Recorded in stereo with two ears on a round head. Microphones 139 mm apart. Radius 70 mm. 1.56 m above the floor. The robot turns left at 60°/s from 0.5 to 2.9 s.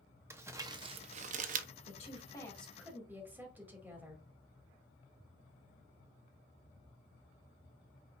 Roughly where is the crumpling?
Centre.